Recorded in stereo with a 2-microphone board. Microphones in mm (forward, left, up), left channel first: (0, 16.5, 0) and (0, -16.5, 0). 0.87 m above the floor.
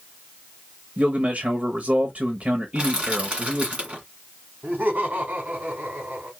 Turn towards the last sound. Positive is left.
turn(degrees=-50)  # may be behind; listen again after turning